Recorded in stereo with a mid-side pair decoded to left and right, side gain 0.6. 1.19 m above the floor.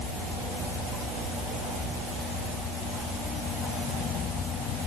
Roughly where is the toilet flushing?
No toilet flushing in this recording.